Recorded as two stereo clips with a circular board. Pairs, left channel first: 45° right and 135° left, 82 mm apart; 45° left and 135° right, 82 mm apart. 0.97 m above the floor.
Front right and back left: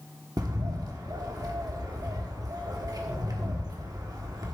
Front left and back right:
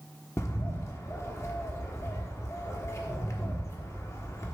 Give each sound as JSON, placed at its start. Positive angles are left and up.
{"t": 0.4, "sound": "a bird", "azimuth_deg": 100, "distance_m": 1.2}